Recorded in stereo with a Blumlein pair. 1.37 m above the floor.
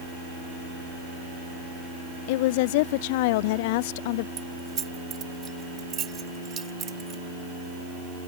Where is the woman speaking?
50° left.